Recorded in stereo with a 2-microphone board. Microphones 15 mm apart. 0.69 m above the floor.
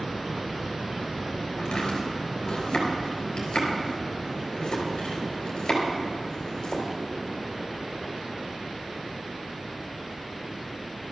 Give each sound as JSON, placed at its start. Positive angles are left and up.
{"t": 1.6, "sound": "chopping", "side_deg": 55, "distance_m": 4.0}